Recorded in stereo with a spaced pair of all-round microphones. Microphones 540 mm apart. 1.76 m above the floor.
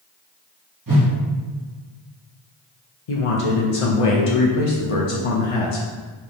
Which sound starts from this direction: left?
A man speaking, at 3.1 s.